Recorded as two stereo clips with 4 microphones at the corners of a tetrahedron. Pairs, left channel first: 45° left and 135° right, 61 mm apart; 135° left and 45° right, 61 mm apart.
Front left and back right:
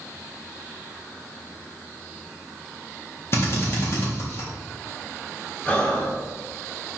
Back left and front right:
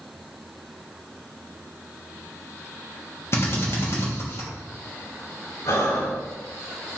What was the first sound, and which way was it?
A drill, 90° left.